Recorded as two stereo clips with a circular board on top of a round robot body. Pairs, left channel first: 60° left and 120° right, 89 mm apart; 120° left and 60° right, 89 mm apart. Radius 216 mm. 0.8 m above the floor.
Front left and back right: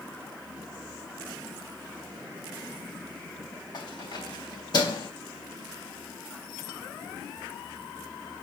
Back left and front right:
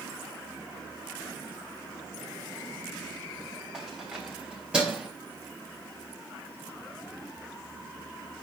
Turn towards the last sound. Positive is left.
turn(degrees=20)